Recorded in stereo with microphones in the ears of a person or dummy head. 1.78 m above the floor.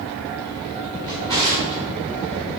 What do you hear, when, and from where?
1.1 s a drawer: 20° right (ahead or behind), 1.8 m